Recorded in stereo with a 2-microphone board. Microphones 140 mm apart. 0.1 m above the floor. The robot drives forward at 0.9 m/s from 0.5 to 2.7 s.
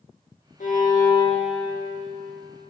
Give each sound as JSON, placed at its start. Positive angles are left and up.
{"t": 0.6, "sound": "a violin", "side_deg": 75, "distance_m": 1.0}